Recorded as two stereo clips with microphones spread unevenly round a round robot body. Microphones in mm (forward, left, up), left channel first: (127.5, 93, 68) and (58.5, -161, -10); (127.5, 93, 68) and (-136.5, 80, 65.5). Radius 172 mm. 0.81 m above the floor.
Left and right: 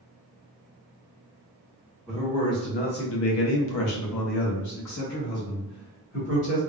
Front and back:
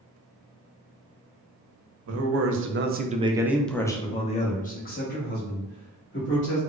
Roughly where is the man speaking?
Behind.